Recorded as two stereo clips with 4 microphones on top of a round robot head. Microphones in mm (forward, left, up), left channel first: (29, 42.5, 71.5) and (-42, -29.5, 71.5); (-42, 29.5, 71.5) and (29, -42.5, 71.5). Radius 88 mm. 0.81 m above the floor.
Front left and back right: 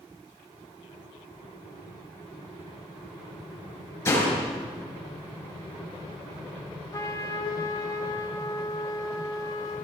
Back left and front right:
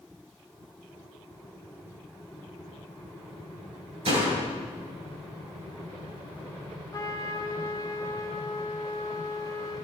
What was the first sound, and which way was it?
A door slam, 20° right.